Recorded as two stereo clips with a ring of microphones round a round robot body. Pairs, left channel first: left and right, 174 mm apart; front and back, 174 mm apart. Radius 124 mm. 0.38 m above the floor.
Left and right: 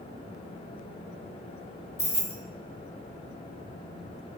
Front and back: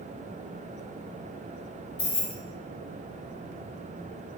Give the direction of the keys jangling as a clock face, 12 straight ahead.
11 o'clock.